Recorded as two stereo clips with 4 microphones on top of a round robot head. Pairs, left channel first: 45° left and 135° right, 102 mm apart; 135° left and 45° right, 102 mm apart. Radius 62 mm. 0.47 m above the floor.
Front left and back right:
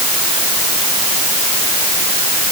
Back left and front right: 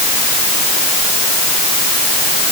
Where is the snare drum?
No snare drum in this recording.